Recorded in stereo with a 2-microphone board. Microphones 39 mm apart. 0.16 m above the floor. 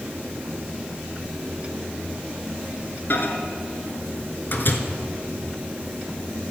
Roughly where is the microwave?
Left.